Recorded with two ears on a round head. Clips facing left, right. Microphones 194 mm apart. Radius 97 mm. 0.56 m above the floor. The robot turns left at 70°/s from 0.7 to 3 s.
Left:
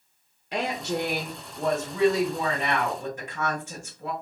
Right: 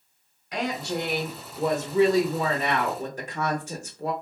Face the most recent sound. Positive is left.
turn(degrees=-115)